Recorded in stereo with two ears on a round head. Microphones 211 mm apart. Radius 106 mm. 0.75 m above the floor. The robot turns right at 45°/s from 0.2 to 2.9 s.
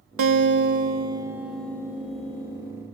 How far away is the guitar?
About 0.9 m.